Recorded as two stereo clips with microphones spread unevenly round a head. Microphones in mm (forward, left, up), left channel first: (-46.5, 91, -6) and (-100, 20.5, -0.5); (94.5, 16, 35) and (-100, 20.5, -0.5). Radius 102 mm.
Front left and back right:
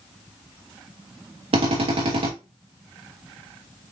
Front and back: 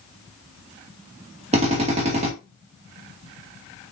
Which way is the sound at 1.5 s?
125° right.